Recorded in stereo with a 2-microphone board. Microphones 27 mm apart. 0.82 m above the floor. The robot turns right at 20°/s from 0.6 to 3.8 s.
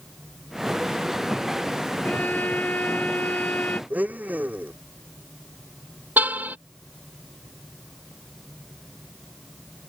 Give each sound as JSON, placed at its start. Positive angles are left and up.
{"t": 2.0, "sound": "a violin", "azimuth_deg": 75}
{"t": 3.9, "sound": "a blender", "side_deg": -85}
{"t": 6.2, "sound": "a car horn", "side_deg": -85}